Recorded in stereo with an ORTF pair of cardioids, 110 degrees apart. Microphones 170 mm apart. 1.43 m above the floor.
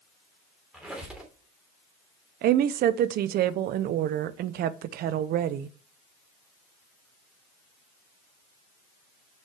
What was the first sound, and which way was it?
A squeak, 5° right.